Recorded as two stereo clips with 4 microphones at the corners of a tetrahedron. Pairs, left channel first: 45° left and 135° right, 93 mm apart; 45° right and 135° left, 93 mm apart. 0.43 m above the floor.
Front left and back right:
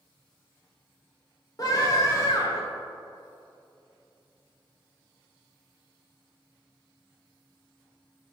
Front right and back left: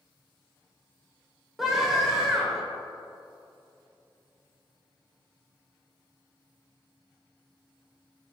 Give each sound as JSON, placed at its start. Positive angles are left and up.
{"t": 1.6, "sound": "a scream", "azimuth_deg": 50, "distance_m": 1.6}